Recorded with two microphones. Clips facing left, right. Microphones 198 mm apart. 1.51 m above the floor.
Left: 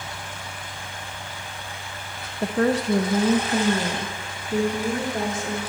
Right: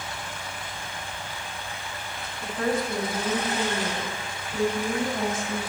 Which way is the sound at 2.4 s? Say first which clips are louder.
Left 6 dB; 70° left (ahead or behind).